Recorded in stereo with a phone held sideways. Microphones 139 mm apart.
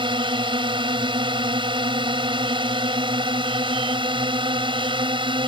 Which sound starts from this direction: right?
A drone, at 0.0 s.